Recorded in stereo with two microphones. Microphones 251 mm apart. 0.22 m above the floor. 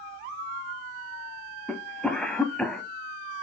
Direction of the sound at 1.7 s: 5° left (ahead or behind).